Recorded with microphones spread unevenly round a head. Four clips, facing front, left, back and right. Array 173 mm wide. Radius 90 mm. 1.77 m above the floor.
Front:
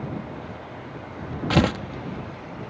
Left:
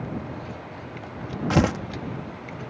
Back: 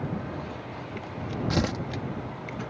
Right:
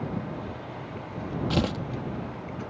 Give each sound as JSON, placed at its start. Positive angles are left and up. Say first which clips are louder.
{"t": 1.5, "sound": "tearing paper", "louder": "left 7 dB, front 8 dB", "azimuth_deg": 50}